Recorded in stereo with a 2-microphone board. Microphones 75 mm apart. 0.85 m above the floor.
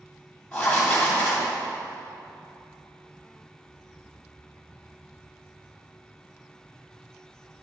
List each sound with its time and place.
0.5 s writing: 15° left (ahead or behind), 2.5 m